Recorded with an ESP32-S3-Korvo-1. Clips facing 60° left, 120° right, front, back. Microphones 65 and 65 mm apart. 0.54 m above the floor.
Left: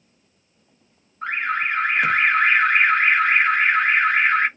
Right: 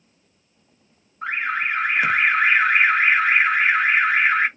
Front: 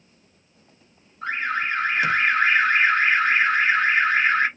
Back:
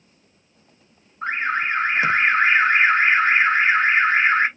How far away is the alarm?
About 0.9 m.